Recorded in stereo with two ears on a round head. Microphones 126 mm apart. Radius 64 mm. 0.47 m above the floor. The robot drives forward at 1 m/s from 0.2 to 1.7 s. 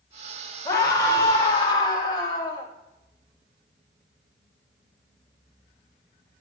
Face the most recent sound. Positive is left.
turn(degrees=30)  # may be behind; listen again after turning